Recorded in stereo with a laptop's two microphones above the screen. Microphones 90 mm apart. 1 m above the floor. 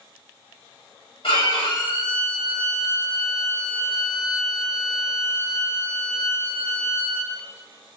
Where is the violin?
70° left (ahead or behind), 1.9 m.